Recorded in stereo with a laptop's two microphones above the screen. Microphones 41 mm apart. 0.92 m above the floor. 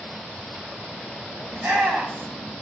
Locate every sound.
1.5 s a shout: 80° right, 4 m